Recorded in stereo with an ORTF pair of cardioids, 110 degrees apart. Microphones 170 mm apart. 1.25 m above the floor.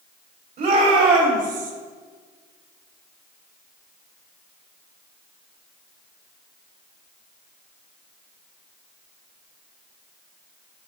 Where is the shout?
55° right, 3.5 m; by 1.7 s 50° right, 1.8 m.